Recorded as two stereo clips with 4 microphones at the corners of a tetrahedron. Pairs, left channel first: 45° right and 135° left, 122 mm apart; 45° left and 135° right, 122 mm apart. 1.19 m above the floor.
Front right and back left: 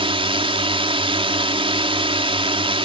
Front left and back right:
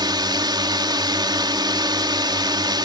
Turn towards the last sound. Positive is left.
turn(degrees=175)